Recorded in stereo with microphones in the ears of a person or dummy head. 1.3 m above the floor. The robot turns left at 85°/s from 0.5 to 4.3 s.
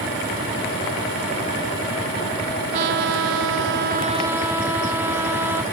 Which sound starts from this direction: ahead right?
A trumpet, at 2.7 s.